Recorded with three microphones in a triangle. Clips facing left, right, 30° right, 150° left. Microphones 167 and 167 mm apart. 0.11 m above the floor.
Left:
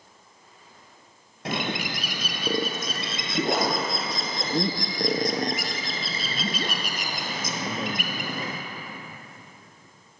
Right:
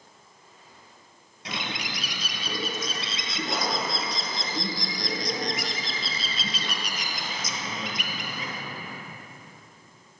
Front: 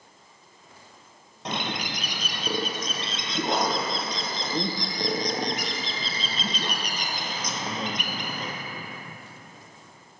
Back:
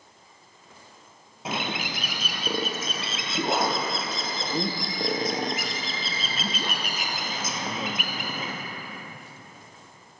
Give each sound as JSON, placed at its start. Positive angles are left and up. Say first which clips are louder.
{"t": 1.4, "sound": "a bird", "louder": "left 6 dB, even", "azimuth_deg": 65, "distance_m": 0.9}